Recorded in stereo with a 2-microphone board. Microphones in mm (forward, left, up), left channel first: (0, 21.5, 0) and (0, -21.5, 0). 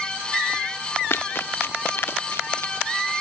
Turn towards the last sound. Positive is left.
turn(degrees=65)  # may be behind; listen again after turning